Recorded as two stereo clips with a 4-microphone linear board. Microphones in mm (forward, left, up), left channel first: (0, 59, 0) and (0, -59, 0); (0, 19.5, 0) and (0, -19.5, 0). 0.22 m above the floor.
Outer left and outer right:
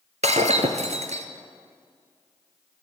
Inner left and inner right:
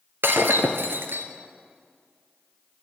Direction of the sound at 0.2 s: 75° right (ahead or behind).